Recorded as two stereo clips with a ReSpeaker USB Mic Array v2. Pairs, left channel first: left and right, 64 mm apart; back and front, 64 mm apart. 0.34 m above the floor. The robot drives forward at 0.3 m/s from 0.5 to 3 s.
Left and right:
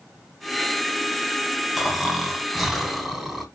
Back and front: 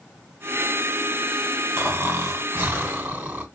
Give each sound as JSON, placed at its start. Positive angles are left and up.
{"t": 1.8, "sound": "snoring", "azimuth_deg": -10, "distance_m": 1.4}